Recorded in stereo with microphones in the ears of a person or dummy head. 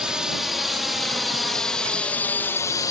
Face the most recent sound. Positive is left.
turn(degrees=20)  # may be behind; listen again after turning